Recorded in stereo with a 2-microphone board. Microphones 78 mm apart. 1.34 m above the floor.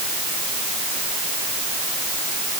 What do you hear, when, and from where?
Only background noise.